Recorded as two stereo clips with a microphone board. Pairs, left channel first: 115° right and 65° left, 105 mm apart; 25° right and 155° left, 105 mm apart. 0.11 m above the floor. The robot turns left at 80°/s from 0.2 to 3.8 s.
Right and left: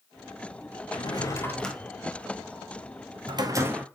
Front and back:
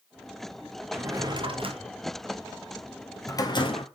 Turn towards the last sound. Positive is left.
turn(degrees=-5)